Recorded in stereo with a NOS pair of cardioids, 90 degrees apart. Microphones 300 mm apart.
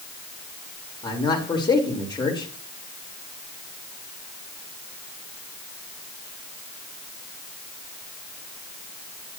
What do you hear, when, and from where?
1.0 s a man speaking: 15° left, 4 m